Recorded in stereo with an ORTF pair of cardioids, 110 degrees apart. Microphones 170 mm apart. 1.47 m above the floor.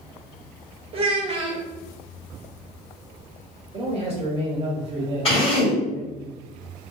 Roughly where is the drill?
Ahead left.